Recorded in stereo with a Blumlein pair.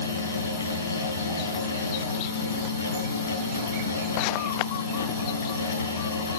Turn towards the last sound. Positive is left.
turn(degrees=65)